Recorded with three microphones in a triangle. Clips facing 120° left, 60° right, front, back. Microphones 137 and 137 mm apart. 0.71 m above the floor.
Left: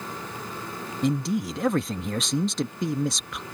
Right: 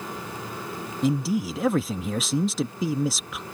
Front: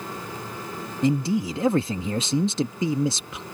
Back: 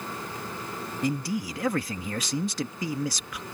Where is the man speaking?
25° left.